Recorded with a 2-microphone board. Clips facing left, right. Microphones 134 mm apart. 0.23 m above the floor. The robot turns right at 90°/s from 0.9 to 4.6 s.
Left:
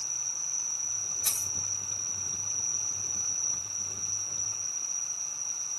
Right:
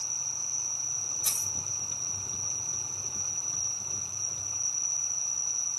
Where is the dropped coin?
10° right (ahead or behind), 2.5 m; by 1.5 s 35° right (ahead or behind), 2.5 m.